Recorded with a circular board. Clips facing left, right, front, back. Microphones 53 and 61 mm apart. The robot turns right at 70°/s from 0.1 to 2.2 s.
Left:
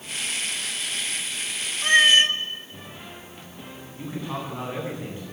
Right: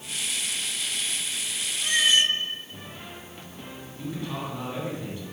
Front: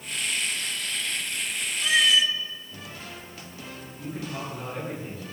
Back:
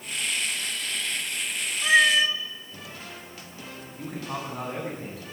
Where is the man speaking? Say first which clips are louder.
Left 1 dB, back 1 dB; 155° left, 9.5 m.